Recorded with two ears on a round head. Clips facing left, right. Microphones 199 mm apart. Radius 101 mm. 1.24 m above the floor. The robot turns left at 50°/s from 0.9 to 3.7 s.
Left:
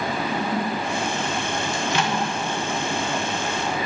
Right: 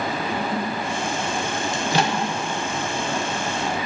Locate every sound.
1.7 s a microwave: 20° right (ahead or behind), 0.5 m; by 2.2 s 40° right (ahead or behind), 0.5 m